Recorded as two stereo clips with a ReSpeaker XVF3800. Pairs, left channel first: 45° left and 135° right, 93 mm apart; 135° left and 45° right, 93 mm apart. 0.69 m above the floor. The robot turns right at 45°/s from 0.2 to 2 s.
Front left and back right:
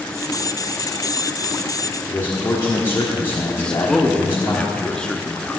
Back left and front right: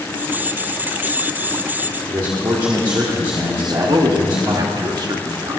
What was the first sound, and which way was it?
A man speaking, 10° right.